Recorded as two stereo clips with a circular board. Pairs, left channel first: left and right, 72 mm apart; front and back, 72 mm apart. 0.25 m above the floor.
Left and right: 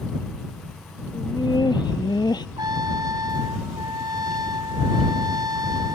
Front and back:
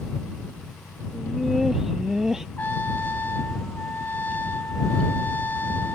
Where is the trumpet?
65° right.